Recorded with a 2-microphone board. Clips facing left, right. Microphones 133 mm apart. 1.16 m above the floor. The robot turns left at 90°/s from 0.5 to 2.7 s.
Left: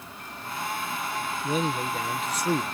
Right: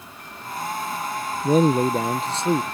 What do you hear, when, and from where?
1.4 s a man speaking: 55° right; by 2.6 s 165° right